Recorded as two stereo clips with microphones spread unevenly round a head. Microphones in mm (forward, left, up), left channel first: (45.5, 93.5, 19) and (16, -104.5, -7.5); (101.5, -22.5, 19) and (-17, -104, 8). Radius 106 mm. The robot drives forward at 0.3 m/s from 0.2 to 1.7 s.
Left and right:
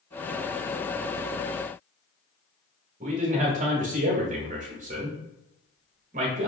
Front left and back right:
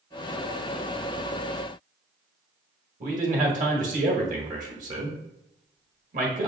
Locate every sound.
3.0 s a man speaking: 145° right, 1.2 m